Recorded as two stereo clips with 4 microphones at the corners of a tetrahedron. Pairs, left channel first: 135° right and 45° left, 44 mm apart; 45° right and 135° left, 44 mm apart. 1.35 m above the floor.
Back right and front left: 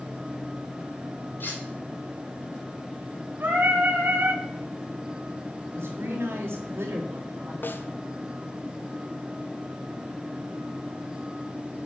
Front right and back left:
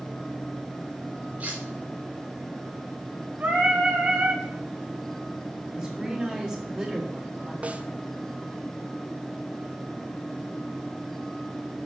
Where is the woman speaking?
65° left, 3 m.